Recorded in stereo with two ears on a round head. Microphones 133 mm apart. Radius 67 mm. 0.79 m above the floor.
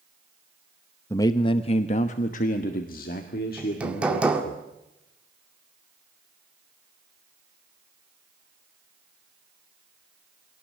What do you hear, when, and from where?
1.1 s a man speaking: 20° left (ahead or behind), 0.8 m; by 4.6 s 75° left (ahead or behind), 2.5 m
3.6 s hammering: 10° right (ahead or behind), 1.9 m